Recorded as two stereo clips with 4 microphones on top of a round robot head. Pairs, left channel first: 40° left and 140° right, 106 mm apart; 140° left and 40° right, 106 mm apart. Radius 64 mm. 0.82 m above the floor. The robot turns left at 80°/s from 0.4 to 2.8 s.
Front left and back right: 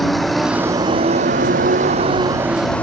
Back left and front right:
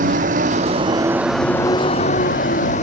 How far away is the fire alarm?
I don't hear a fire alarm.